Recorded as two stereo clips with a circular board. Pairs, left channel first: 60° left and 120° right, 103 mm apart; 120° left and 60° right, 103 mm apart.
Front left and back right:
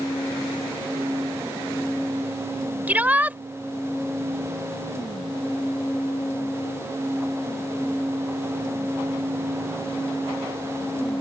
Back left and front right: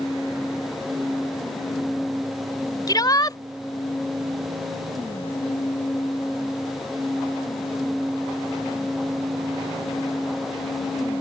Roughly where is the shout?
Behind.